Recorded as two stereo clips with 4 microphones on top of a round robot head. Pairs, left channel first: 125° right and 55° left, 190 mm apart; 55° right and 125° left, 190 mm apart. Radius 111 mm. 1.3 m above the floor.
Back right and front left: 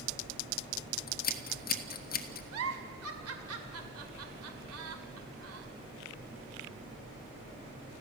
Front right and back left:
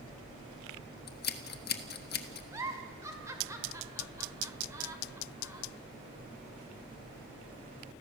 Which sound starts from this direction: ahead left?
A giggle, at 2.5 s.